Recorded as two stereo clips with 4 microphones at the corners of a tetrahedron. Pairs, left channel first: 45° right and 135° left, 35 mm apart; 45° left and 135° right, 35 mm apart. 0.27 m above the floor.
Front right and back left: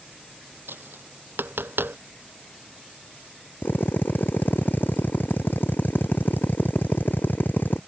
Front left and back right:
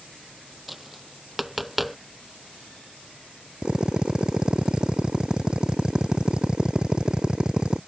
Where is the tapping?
140° left.